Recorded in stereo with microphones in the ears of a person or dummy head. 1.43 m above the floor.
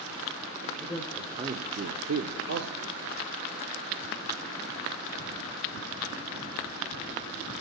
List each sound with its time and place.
0.8 s a man speaking: 5° left (ahead or behind), 1.7 m; by 3.0 s 50° right (ahead or behind), 1.9 m